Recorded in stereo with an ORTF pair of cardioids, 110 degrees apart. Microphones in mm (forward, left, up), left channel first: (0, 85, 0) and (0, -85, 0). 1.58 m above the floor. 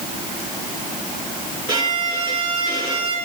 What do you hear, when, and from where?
1.7 s a violin: 30° right, 5 m